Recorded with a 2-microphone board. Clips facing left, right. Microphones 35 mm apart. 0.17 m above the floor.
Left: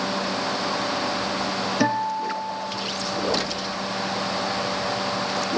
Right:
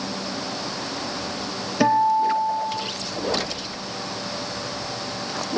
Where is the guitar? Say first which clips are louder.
Right 8 dB; 10° right (ahead or behind), 3.5 m.